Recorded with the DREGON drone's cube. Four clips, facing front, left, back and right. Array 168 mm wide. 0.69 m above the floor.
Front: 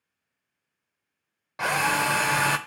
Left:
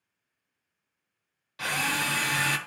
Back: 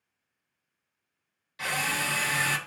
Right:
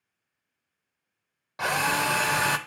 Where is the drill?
40° right, 0.8 m.